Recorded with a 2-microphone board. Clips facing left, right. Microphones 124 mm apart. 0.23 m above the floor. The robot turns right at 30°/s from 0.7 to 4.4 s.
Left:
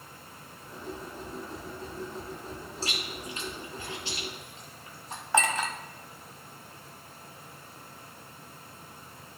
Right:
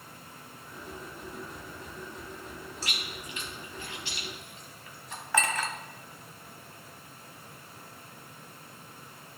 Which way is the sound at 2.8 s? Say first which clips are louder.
Left 6 dB; 30° left (ahead or behind).